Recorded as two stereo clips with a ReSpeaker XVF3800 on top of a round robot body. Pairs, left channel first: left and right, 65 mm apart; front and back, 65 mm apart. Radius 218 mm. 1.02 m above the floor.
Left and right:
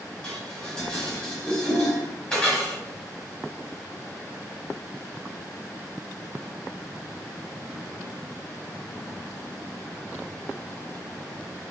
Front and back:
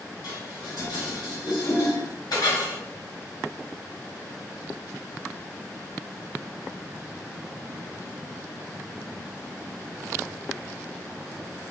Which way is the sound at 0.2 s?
10° left.